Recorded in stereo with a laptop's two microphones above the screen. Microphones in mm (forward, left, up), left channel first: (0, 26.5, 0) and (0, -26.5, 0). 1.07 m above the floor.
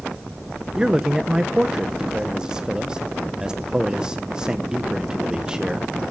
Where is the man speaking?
15° right (ahead or behind), 0.7 m.